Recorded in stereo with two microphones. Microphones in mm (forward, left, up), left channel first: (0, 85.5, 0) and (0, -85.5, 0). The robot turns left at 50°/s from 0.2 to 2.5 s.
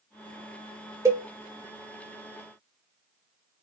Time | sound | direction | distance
1.1 | a cowbell | 20° right (ahead or behind) | 1.5 m